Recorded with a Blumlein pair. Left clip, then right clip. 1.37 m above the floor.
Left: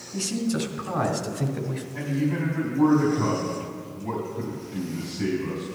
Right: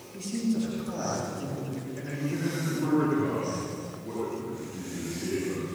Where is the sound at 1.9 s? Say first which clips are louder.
Left 7 dB; 55° left, 3.5 m.